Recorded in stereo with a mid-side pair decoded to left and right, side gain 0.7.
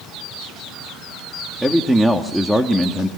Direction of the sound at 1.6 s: 5° right.